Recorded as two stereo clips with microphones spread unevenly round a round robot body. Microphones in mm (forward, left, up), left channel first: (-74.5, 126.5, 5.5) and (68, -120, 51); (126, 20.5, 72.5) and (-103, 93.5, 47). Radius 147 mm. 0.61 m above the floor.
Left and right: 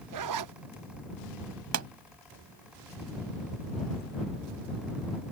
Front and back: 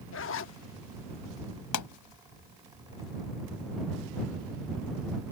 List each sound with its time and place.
0.1 s a zipper: 50° right
1.7 s a pop: 20° right